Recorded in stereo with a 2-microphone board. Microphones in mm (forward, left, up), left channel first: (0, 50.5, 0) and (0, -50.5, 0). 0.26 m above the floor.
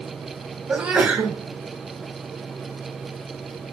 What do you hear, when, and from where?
0.7 s a sneeze: 10° right (ahead or behind), 2.0 m